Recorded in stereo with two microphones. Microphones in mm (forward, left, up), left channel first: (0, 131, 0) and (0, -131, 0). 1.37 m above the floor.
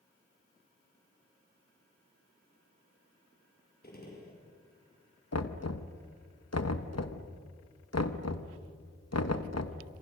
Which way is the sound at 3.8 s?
35° left (ahead or behind).